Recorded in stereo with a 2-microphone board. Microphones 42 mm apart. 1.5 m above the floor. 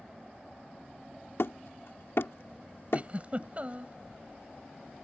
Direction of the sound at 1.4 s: 75° left (ahead or behind).